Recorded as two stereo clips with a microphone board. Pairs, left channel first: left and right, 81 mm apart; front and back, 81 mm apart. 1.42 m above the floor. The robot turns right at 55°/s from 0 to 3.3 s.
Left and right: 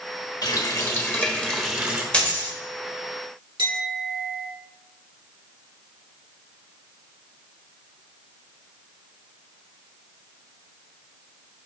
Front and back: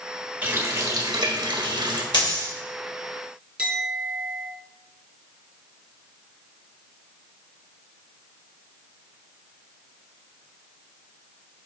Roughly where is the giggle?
No giggle in this recording.